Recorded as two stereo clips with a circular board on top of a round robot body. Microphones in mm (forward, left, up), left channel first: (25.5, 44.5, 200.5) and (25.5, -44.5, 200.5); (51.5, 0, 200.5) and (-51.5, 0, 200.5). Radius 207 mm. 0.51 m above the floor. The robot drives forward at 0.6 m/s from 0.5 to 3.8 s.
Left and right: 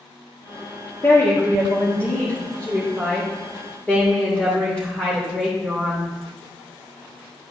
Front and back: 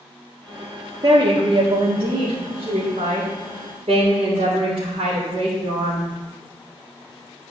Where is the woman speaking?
145° left, 1.6 m; by 6.1 s 165° left, 3 m.